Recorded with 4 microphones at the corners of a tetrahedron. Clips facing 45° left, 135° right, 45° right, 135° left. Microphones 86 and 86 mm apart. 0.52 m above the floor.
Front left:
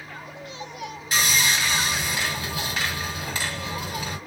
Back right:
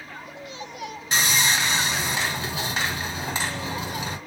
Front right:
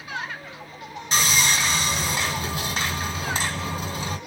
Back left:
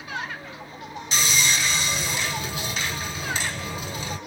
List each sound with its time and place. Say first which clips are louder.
1.1 s sawing: even, front right 2 dB; 80° right, 1.7 m